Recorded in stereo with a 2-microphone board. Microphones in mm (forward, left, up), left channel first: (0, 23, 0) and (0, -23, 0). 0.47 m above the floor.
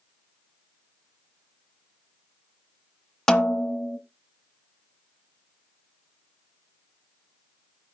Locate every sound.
3.3 s a snare drum: 10° left (ahead or behind), 1.1 m